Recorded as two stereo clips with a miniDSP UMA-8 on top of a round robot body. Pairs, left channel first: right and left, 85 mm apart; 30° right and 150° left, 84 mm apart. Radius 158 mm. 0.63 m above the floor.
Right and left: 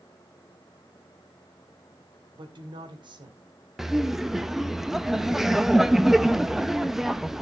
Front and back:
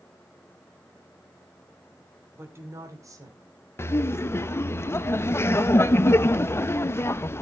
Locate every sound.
2.4 s a woman speaking: 85° left, 2.5 m; by 3.4 s 105° left, 2.5 m
3.8 s laughter: 5° left, 0.7 m